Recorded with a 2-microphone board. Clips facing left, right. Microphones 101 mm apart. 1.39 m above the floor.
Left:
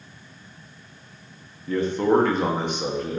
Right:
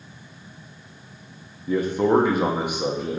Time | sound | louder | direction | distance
1.7 | a man speaking | right 1 dB | 10° right (ahead or behind) | 1.2 m